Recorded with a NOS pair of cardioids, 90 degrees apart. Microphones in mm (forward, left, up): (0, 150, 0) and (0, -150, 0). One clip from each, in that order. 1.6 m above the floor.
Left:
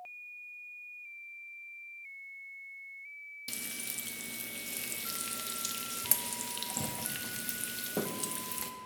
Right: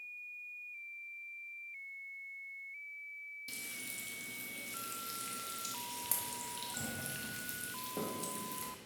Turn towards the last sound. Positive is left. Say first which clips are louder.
# left 6 dB
turn(degrees=35)